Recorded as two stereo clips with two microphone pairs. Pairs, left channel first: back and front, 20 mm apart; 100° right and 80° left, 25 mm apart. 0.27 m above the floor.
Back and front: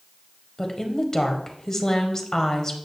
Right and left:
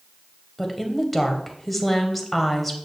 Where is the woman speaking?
Straight behind, 1.1 m.